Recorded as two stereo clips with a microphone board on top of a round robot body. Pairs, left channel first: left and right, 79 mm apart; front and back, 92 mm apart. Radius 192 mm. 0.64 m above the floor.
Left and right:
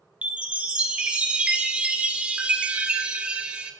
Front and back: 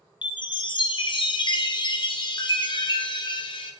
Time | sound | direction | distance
0.2 | a chime | 15° right | 0.9 m